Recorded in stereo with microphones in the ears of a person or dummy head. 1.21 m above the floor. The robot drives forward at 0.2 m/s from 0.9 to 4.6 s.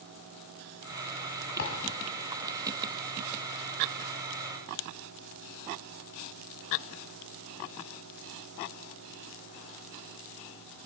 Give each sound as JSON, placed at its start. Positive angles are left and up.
{"t": 1.6, "sound": "a thud", "side_deg": 55, "distance_m": 1.8}